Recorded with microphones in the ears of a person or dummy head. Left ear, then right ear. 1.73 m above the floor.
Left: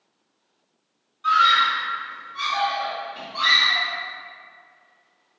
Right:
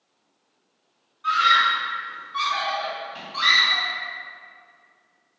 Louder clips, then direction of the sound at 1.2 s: Left 1 dB; 5° left (ahead or behind).